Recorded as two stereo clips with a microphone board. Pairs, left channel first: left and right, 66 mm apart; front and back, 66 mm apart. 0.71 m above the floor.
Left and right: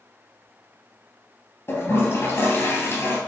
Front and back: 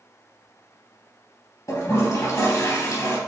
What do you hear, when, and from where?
1.7 s a toilet flushing: 40° left, 3 m